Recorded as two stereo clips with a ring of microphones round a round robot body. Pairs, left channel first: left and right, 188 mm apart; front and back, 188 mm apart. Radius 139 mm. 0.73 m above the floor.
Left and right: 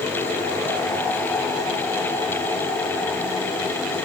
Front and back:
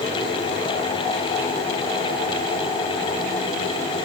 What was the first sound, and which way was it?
Only background noise.